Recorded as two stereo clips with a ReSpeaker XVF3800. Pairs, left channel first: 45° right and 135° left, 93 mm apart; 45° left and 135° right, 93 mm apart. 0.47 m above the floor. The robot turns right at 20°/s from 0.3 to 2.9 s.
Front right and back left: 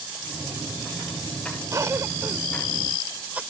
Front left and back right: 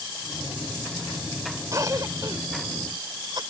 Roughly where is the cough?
Behind.